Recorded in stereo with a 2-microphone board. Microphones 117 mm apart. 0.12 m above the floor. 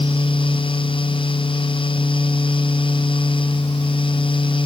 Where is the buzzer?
No buzzer in this recording.